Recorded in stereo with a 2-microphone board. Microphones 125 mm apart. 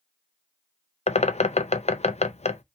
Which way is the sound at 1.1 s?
65° left (ahead or behind).